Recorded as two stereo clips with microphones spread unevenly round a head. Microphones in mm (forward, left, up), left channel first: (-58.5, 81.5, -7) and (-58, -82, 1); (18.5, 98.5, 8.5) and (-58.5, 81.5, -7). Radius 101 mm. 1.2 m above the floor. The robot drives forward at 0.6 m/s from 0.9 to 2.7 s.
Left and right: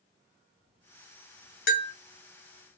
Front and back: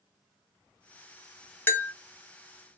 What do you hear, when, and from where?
1.7 s a bell: 75° left, 0.7 m; by 1.9 s 85° left, 0.7 m